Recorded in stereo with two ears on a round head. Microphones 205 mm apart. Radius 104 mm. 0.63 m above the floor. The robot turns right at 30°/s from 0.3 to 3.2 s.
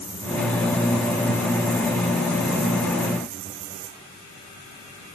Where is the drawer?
No drawer in this recording.